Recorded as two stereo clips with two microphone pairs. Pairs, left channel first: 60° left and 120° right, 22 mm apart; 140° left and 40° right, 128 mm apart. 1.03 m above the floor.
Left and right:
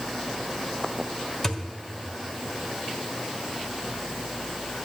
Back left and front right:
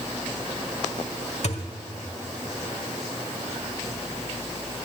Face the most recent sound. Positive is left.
turn(degrees=125)